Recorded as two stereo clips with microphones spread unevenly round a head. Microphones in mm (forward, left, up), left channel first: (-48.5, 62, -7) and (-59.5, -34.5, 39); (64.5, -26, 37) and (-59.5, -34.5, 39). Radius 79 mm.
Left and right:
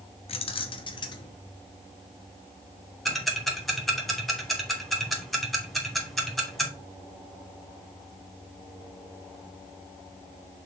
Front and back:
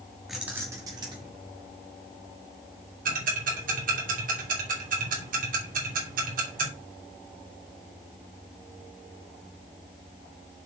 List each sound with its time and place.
0.3 s keys jangling: 95° left, 1.4 m; by 1.3 s 125° left, 2.5 m
3.0 s ticking: 170° left, 3 m